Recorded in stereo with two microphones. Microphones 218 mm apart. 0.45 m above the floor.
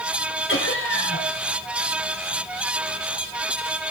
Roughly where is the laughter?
Left.